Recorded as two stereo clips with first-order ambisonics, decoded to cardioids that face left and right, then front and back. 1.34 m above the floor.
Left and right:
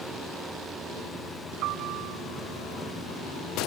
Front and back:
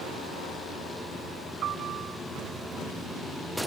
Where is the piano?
125° right.